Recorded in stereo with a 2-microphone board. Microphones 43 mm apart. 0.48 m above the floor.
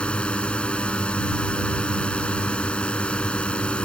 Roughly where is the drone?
Left.